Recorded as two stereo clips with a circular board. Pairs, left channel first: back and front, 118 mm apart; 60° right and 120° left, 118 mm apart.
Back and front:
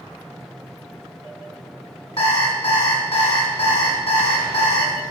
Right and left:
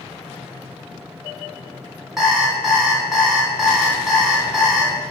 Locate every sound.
2.2 s an alarm clock: 155° right, 1.7 m